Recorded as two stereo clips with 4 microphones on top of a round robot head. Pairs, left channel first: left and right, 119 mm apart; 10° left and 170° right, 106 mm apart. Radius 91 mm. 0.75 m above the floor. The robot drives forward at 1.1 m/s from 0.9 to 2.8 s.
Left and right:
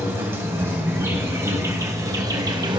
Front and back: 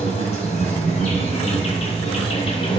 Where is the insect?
20° right, 4 m; by 2.8 s 40° right, 2 m.